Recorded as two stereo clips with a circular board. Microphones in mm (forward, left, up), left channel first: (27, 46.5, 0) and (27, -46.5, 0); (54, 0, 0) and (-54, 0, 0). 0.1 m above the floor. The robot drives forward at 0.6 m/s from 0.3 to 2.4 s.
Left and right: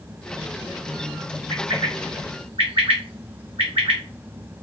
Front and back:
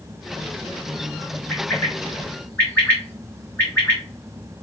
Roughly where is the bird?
Ahead right.